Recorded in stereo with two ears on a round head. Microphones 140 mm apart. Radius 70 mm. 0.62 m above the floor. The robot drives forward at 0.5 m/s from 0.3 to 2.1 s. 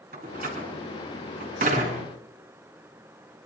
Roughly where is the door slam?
Right.